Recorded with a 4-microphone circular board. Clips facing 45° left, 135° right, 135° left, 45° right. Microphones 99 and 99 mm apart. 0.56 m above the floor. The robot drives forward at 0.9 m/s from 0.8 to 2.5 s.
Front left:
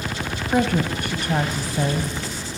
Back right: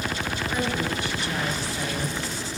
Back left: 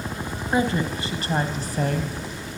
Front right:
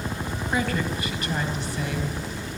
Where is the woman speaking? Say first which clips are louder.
Front left 8 dB, back left 4 dB; 70° left, 3 m; by 2.1 s 95° left, 2.5 m.